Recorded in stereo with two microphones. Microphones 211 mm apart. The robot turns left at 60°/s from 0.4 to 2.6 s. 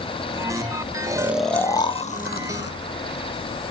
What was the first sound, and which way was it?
Snoring, 15° right (ahead or behind).